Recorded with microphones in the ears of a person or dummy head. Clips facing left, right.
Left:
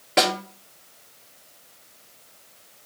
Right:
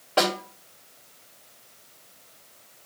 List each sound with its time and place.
0.2 s a snare drum: 25° left (ahead or behind), 1.8 m